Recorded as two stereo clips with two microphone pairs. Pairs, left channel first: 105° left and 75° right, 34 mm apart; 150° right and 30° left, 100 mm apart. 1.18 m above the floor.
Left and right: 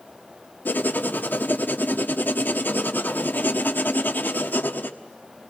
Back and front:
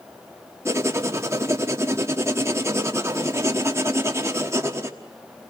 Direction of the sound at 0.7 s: 90° left.